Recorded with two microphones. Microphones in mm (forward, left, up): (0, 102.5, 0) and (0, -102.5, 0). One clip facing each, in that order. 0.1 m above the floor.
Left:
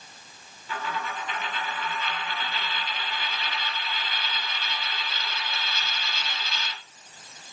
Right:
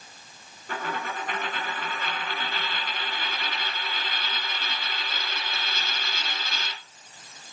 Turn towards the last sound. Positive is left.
turn(degrees=-50)  # may be behind; listen again after turning